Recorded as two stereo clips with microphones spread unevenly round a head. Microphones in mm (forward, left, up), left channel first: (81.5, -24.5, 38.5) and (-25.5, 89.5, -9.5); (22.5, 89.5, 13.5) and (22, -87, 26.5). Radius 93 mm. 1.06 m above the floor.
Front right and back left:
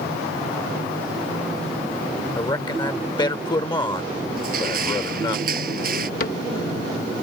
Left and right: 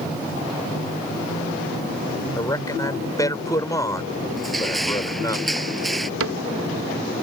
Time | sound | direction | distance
2.4 | a man speaking | 20° left | ?
4.4 | crushing | straight behind | ?
6.2 | a cupboard door | 95° right | ?